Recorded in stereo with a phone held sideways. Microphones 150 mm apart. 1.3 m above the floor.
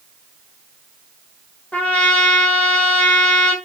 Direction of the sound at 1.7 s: 10° left (ahead or behind).